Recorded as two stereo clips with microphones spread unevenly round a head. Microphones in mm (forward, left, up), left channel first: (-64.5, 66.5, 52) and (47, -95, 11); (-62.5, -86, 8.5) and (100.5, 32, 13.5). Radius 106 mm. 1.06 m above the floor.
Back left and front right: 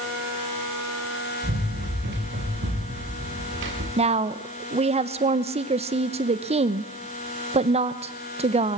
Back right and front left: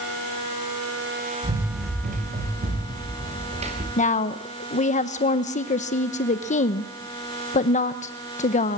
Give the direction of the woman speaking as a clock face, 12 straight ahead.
3 o'clock.